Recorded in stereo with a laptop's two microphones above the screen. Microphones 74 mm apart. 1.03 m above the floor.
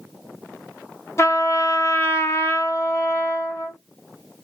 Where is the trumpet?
40° left (ahead or behind), 1.3 m.